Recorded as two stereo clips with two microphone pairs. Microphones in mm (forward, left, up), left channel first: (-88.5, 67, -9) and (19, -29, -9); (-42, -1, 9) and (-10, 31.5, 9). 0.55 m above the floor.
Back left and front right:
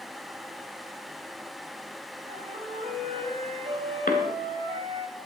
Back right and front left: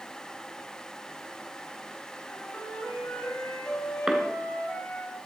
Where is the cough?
125° left, 2 m.